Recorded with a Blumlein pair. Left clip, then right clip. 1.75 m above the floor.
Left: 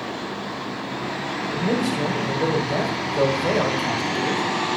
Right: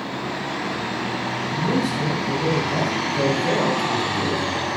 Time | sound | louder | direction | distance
1.5 | a man speaking | even | 70° left | 1.2 m